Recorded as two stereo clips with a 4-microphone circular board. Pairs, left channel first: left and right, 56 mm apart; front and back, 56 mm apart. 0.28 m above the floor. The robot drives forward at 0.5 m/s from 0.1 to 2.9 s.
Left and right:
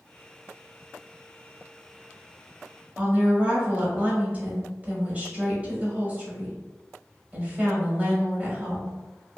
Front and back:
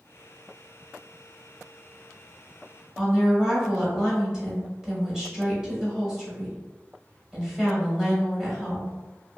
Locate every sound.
3.0 s a woman speaking: 115° right, 1.0 m